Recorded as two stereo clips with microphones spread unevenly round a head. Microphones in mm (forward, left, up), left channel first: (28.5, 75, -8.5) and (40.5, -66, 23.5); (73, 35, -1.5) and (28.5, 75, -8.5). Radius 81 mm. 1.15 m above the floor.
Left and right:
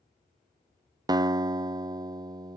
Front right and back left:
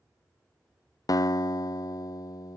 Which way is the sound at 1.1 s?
20° right.